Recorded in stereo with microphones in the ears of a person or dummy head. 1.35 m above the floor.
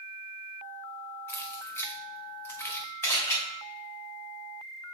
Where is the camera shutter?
15° left (ahead or behind), 1.9 m.